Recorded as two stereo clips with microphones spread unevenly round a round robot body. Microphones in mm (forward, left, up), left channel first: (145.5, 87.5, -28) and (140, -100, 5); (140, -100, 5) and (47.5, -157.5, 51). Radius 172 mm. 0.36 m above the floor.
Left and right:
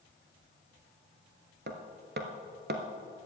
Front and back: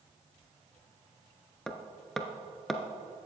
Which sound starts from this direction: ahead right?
Hammering, at 1.7 s.